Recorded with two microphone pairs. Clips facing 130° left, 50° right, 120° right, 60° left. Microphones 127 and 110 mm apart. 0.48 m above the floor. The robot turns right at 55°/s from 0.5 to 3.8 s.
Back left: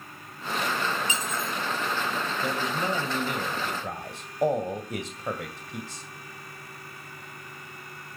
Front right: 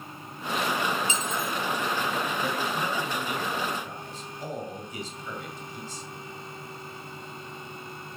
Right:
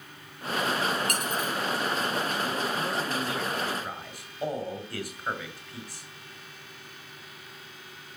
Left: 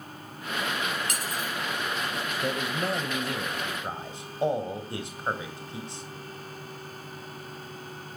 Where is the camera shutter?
No camera shutter in this recording.